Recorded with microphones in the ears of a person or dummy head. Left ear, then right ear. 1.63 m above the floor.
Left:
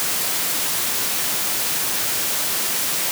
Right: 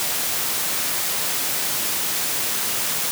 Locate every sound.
Only background noise.